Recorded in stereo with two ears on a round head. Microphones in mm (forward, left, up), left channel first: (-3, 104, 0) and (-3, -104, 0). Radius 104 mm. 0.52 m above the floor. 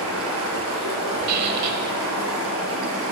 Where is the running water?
65° right (ahead or behind), 3 m.